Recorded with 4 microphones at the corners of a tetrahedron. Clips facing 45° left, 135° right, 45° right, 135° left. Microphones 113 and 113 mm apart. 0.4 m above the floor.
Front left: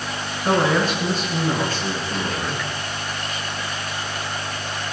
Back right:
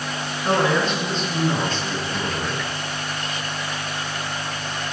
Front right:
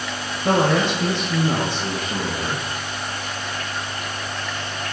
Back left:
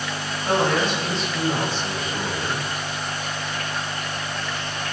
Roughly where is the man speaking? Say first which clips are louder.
Front left 1 dB, front right 3 dB; ahead right.